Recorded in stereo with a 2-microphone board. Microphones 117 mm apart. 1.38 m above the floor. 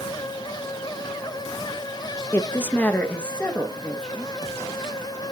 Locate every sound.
2.3 s a woman speaking: 20° left (ahead or behind), 0.8 m; by 4.3 s 5° left (ahead or behind), 1.9 m